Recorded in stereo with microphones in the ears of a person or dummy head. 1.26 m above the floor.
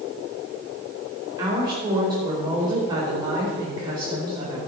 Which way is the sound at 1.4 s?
20° right (ahead or behind).